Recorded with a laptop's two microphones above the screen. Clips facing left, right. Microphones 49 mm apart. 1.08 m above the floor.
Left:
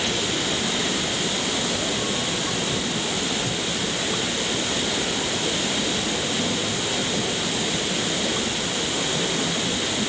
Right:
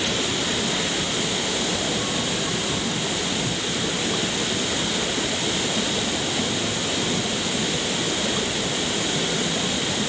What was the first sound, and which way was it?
Only background noise.